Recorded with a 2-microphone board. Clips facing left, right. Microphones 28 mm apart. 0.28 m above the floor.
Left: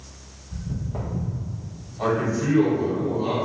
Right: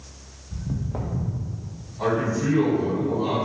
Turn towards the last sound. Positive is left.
turn(degrees=15)  # may be behind; listen again after turning